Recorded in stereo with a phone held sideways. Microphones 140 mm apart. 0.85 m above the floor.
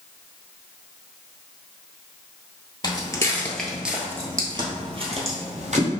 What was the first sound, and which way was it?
Footsteps, 30° left (ahead or behind).